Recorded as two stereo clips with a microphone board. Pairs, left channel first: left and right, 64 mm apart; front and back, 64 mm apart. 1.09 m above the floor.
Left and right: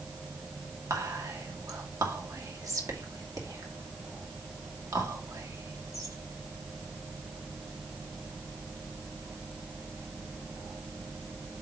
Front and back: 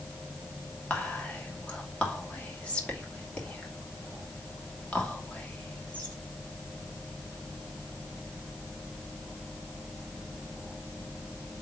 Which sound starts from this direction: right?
Whispering, at 0.9 s.